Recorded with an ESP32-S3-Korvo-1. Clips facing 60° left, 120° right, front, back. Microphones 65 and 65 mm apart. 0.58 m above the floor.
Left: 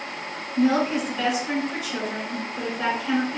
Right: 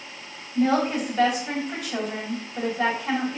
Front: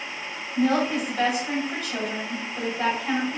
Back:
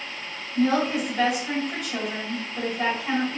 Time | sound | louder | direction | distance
0.6 | a woman speaking | left 1 dB, even | 95° right | 2 m